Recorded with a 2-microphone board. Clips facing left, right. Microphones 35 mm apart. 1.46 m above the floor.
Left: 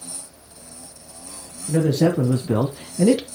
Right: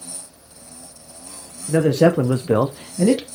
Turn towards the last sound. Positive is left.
turn(degrees=0)  # may be behind; listen again after turning